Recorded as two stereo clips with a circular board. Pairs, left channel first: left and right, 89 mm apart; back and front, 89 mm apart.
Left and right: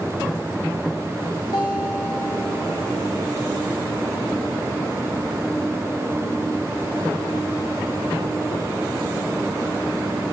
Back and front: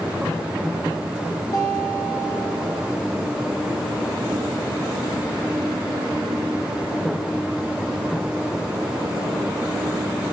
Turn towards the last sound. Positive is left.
turn(degrees=125)